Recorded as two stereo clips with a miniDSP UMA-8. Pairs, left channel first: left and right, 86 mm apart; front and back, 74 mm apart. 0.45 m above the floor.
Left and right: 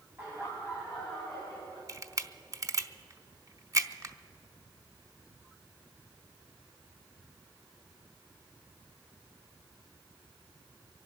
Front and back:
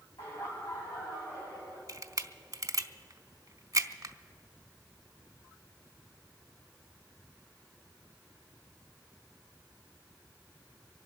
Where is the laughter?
25° right, 2.5 m; by 1.8 s 15° left, 3.5 m.